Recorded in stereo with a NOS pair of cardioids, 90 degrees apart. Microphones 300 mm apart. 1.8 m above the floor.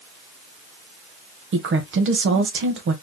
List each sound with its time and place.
1.5 s a woman speaking: 40° right, 1.4 m